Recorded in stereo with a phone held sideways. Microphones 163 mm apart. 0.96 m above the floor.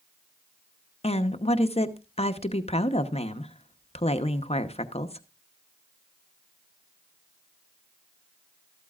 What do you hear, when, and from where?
1.0 s a woman speaking: 40° left (ahead or behind), 0.9 m